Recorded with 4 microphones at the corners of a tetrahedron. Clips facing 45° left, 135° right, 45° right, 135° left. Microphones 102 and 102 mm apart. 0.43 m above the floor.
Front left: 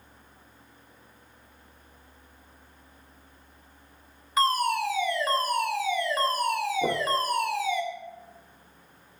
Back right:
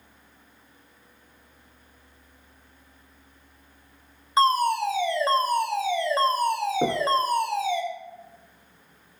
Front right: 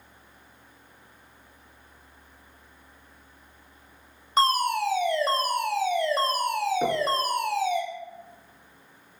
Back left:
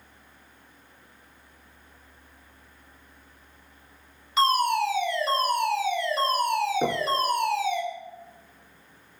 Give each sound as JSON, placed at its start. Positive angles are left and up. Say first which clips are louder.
{"t": 4.4, "sound": "a fire alarm", "louder": "back right 4 dB, back left 1 dB", "azimuth_deg": -80, "distance_m": 3.0}
{"t": 6.8, "sound": "knocking", "louder": "back right 4 dB, front right 1 dB", "azimuth_deg": -145, "distance_m": 4.5}